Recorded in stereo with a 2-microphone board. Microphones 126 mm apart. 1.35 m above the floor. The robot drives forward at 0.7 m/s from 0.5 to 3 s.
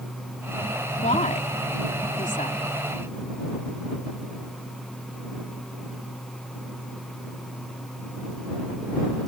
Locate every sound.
1.0 s a woman speaking: 70° left (ahead or behind); by 2.6 s 85° left